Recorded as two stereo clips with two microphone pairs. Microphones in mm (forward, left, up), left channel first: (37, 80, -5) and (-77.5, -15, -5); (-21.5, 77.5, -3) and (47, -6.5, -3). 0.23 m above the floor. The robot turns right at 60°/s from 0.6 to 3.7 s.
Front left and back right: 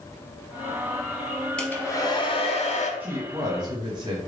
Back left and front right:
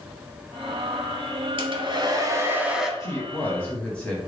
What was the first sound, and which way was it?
A hair dryer, 40° right.